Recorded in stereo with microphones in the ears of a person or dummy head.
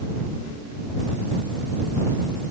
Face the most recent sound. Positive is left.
No sound to turn to.